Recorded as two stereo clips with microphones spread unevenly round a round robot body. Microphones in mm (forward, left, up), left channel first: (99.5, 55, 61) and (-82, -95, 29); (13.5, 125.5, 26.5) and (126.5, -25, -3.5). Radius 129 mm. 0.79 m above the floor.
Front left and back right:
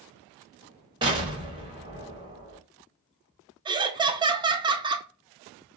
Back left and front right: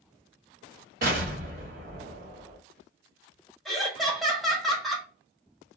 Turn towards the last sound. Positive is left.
turn(degrees=-125)